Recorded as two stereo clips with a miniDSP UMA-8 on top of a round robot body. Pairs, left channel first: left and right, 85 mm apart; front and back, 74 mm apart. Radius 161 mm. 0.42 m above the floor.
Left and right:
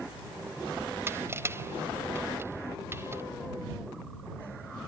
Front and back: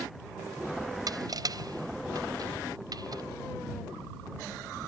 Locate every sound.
1.1 s crushing: 150° right